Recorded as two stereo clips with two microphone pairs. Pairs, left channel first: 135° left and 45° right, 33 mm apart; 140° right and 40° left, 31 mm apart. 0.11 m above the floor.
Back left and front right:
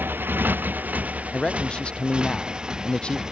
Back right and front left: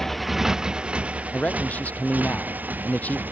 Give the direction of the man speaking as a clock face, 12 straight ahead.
6 o'clock.